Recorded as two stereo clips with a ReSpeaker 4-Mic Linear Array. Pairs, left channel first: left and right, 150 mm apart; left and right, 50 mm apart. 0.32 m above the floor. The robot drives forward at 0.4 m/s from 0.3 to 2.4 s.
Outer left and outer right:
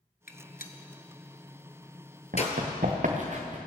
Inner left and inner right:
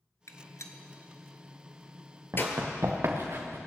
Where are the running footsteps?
65° right (ahead or behind), 2.5 m; by 3.6 s 50° right (ahead or behind), 1.7 m.